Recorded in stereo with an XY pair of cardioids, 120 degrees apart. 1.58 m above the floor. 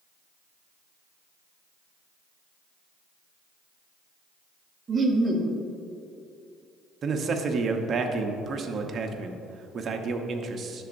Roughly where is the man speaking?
Ahead right.